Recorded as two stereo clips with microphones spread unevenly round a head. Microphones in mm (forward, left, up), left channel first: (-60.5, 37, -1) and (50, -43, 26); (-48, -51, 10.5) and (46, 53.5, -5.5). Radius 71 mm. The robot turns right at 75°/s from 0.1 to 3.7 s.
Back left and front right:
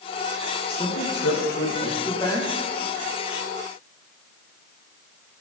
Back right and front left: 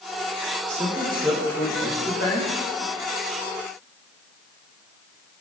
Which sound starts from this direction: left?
A man speaking, at 0.7 s.